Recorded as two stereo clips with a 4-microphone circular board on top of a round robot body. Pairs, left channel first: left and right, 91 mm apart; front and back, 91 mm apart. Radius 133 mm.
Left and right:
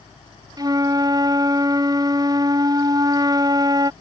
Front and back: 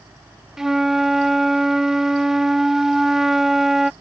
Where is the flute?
95° right.